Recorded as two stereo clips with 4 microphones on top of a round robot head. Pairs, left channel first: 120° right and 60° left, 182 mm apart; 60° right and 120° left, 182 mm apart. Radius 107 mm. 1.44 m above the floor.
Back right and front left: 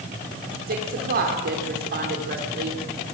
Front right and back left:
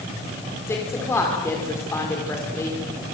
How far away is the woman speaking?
About 4.5 m.